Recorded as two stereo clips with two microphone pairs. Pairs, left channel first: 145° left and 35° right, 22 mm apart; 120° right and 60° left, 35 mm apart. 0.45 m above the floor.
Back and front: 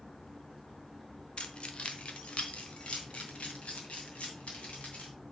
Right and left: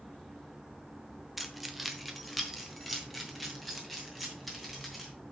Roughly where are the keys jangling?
Behind left.